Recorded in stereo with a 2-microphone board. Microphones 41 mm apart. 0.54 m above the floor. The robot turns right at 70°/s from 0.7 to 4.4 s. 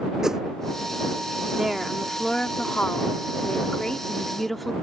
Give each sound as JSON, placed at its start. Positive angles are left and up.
{"t": 0.2, "sound": "a whoosh", "side_deg": -15}
{"t": 1.6, "sound": "a woman speaking", "azimuth_deg": -25}